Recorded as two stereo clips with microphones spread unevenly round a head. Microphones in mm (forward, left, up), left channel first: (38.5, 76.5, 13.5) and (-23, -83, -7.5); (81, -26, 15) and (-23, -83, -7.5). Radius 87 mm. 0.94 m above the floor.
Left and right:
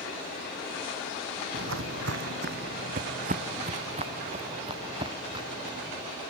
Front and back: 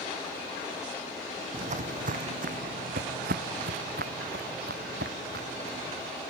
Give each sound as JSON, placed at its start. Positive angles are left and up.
{"t": 1.5, "sound": "footsteps", "azimuth_deg": -120}